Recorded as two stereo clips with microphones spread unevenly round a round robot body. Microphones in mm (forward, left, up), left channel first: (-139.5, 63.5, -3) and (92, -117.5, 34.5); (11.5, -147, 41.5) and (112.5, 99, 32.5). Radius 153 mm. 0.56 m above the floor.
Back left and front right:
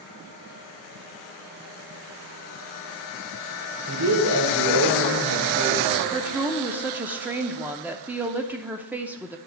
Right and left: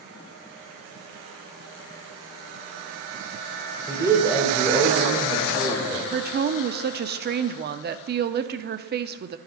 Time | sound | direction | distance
3.9 | a man speaking | 10° right | 2.5 m
6.1 | a woman speaking | 55° left | 0.7 m